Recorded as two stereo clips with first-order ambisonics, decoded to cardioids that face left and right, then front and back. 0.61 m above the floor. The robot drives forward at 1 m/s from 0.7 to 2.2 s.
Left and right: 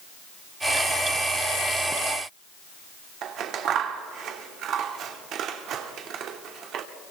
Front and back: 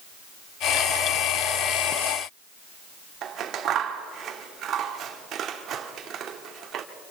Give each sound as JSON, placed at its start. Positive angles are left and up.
{"t": 3.2, "sound": "scissors", "azimuth_deg": -130, "distance_m": 1.3}